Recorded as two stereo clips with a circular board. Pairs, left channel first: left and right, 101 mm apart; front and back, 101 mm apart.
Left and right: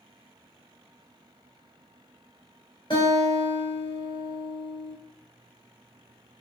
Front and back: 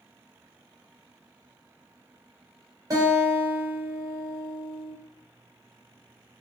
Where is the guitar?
130° left, 1.7 m.